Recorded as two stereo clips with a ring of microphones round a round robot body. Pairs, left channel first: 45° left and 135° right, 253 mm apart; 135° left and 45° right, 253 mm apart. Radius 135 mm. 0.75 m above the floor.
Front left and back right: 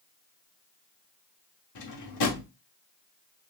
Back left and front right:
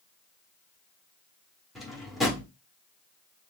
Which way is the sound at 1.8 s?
45° left.